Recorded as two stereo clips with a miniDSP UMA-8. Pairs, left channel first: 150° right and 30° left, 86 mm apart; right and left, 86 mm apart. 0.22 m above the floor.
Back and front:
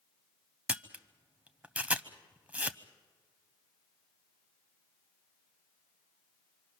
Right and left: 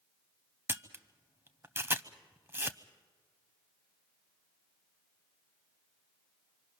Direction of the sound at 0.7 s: 80° left.